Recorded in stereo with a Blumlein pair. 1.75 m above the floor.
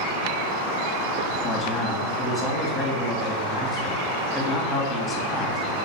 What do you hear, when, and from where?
1.4 s a man speaking: 10° left, 2.5 m